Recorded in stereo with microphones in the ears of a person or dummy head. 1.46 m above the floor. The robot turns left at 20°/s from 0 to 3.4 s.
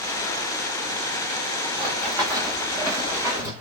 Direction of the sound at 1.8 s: 35° right (ahead or behind).